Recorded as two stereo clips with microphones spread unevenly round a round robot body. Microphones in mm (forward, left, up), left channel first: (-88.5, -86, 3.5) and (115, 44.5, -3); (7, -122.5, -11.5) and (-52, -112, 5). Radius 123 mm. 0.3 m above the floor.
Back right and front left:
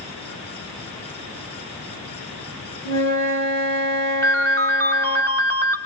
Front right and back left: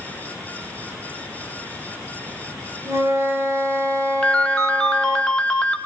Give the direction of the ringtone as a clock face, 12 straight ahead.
2 o'clock.